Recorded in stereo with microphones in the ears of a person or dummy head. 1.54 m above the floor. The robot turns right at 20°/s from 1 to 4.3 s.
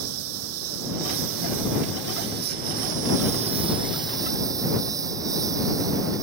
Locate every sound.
0.0 s a lawn mower: 85° right; by 6.2 s 20° right